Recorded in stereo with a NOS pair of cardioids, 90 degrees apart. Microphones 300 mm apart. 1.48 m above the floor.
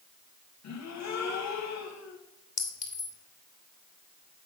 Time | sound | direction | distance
0.6 | a gasp | 65° left | 1.7 m
2.6 | a clink | 25° left | 3 m